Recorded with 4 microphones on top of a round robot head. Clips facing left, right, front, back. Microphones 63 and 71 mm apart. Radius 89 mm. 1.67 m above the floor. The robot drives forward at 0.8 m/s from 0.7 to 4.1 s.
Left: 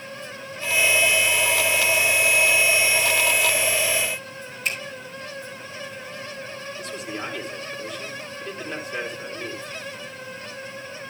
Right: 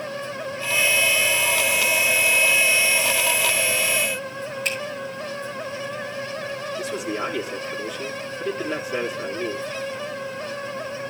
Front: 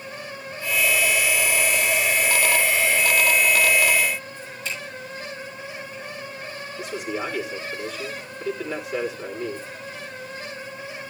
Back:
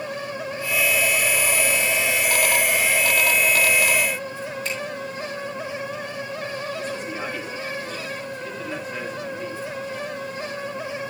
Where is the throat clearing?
No throat clearing in this recording.